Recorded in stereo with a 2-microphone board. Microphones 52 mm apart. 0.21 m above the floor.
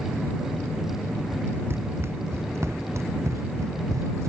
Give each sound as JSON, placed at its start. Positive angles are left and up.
{"t": 1.7, "sound": "running footsteps", "side_deg": -45}